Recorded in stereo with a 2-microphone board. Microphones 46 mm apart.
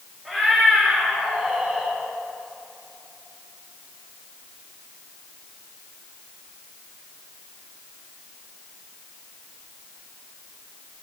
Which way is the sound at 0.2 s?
5° left (ahead or behind).